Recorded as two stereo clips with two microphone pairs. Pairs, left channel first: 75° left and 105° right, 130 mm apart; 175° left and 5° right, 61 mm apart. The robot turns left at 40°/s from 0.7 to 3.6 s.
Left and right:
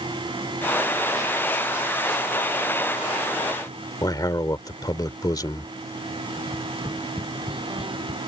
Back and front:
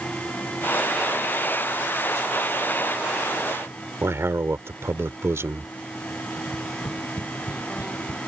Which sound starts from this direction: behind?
Tapping, at 6.4 s.